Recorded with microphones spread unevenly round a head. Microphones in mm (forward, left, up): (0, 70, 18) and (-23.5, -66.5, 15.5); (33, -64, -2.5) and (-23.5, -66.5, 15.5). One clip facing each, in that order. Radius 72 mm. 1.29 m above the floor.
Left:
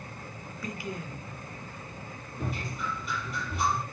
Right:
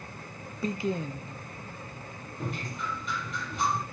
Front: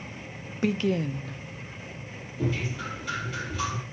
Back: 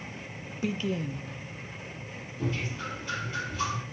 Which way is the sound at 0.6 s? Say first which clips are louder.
Right 8 dB, front 5 dB; 30° right.